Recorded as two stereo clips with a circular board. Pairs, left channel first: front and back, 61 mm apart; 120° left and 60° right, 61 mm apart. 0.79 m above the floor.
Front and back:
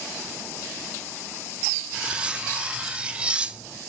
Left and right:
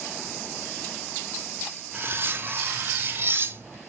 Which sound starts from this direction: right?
Cutlery clinking, at 1.9 s.